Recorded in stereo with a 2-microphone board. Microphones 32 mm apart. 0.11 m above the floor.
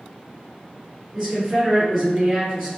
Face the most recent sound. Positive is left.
turn(degrees=-10)  # may be behind; listen again after turning